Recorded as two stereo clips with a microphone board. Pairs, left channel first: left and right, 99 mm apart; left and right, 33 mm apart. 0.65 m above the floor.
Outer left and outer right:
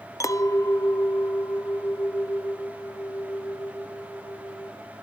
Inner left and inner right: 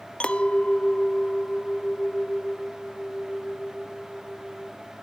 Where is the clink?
30° left (ahead or behind), 0.6 m.